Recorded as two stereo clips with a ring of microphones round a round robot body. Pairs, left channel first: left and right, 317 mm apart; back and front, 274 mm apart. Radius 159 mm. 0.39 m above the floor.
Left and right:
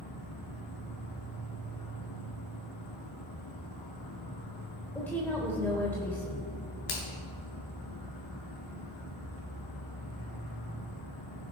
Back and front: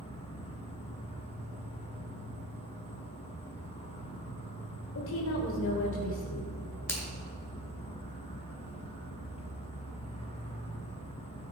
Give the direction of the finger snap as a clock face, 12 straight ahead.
9 o'clock.